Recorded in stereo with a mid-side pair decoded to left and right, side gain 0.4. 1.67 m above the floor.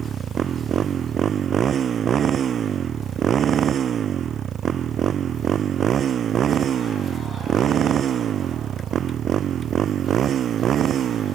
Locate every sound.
0.0 s a motorcycle: 60° right; by 11.4 s 70° right